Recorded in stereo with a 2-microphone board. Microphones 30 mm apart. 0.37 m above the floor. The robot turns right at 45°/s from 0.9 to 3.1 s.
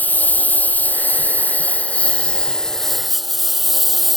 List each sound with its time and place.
0.0 s a lawn mower: 80° left; by 4.2 s straight behind